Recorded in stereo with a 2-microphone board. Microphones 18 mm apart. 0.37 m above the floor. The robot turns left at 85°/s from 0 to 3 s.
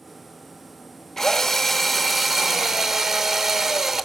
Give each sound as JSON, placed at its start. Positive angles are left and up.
{"t": 1.2, "sound": "a drill", "side_deg": 25, "distance_m": 0.7}